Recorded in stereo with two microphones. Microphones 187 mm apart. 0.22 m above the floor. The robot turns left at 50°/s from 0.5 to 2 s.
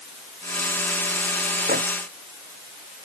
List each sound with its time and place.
1.7 s a microwave: 55° right (ahead or behind); by 1.8 s 65° right (ahead or behind)